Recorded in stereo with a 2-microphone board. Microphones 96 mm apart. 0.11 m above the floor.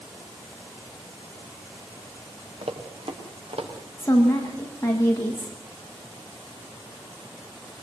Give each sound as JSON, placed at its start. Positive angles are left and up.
{"t": 2.6, "sound": "running footsteps", "side_deg": -85, "distance_m": 4.5}
{"t": 4.0, "sound": "a woman speaking", "side_deg": 25, "distance_m": 8.0}